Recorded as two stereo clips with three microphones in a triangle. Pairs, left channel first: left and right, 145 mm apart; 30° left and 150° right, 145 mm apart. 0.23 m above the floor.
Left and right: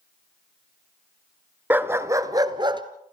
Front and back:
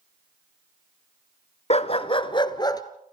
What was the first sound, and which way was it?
A dog barking, 15° right.